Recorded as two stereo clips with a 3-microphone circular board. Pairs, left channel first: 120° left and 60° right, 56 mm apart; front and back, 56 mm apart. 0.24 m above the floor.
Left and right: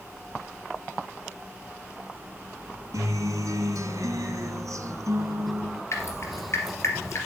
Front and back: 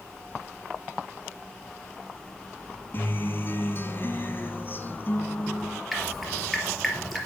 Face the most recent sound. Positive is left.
turn(degrees=90)